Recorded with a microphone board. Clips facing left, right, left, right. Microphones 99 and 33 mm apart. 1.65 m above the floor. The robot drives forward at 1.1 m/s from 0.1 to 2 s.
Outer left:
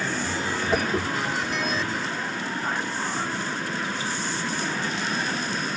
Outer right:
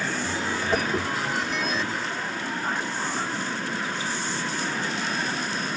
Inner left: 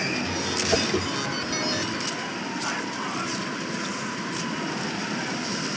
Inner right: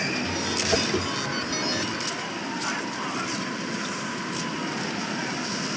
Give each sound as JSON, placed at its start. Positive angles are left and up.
{"t": 0.7, "sound": "a whoosh", "side_deg": 0}